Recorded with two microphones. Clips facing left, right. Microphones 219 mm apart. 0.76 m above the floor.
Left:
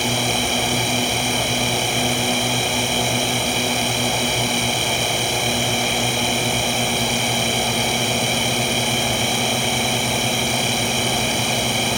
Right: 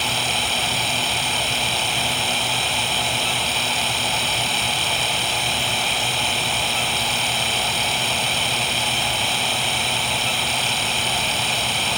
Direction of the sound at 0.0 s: 50° left (ahead or behind).